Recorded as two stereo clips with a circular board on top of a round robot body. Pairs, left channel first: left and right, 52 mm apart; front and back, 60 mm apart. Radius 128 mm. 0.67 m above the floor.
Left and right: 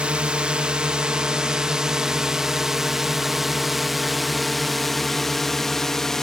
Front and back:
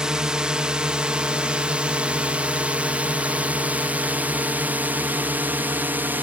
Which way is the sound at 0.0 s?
120° right.